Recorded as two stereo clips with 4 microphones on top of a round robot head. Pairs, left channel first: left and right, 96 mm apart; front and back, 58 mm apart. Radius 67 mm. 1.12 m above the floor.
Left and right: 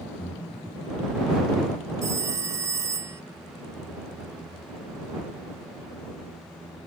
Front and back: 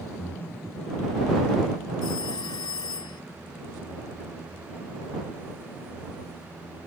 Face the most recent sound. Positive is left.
turn(degrees=-35)